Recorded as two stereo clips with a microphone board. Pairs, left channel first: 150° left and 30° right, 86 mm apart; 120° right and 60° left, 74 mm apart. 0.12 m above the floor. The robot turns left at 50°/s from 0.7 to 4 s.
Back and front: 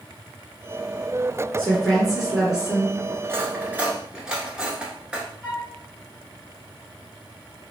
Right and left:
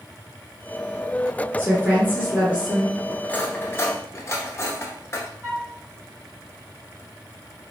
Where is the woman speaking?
90° left, 1.6 m; by 3.1 s 10° left, 1.6 m.